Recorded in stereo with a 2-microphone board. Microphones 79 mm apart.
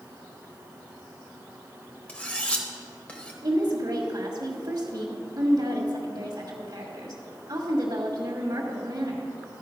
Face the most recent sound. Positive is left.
turn(degrees=-55)  # may be behind; listen again after turning